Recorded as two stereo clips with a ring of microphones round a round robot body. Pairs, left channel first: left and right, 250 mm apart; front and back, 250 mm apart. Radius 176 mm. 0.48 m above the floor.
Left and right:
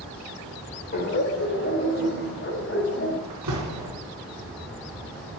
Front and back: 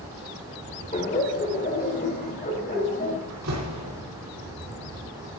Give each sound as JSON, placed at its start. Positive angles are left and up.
{"t": 0.9, "sound": "laughter", "azimuth_deg": 55, "distance_m": 2.0}
{"t": 3.3, "sound": "a door slam", "azimuth_deg": -135, "distance_m": 4.0}